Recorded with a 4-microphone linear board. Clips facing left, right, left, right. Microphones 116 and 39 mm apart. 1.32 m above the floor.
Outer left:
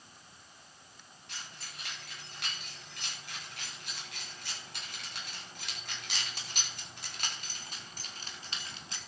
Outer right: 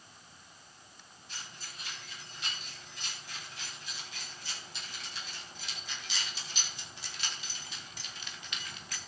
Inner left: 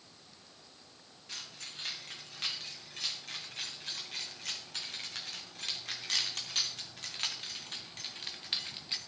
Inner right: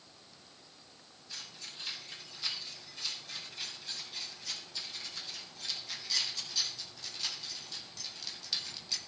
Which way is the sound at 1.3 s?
80° left.